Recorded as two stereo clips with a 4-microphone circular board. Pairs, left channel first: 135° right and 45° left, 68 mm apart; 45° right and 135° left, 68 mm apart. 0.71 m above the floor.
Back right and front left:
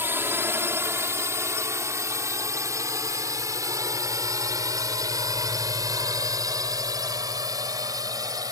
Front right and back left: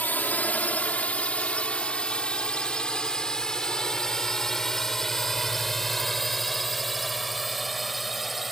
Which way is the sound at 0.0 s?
10° left.